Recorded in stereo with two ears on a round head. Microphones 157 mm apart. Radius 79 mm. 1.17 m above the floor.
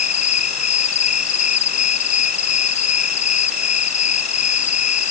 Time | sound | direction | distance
0.0 | an insect | 45° left (ahead or behind) | ?